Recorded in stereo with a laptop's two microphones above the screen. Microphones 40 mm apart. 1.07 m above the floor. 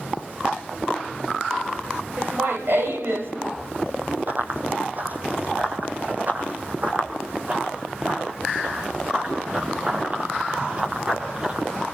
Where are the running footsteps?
45° right (ahead or behind), 2.5 m; by 11.8 s 25° right (ahead or behind), 7.5 m.